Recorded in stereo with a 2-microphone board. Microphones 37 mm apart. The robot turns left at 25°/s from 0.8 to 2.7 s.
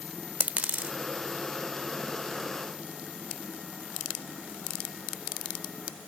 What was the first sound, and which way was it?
A dropped coin, 45° right (ahead or behind).